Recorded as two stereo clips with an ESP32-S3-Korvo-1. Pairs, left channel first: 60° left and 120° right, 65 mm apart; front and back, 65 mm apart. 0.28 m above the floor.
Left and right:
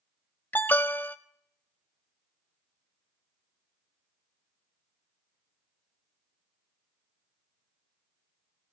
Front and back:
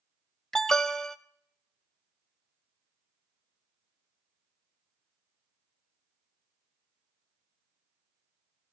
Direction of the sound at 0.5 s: 75° left.